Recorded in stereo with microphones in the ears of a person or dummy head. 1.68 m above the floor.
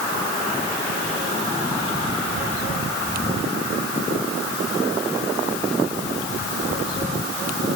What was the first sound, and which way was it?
Only background noise.